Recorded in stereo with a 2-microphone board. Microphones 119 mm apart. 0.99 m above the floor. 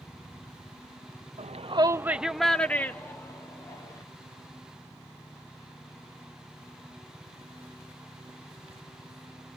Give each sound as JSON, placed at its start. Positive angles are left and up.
{"t": 1.4, "sound": "a shout", "side_deg": -70, "distance_m": 0.6}